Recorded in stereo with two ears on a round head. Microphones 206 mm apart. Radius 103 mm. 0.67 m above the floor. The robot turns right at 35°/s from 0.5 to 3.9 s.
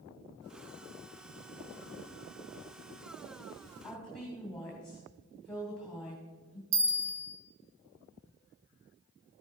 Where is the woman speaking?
5° left (ahead or behind), 2 m.